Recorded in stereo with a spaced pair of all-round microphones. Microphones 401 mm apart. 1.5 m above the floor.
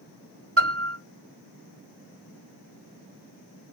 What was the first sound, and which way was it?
A piano, 35° right (ahead or behind).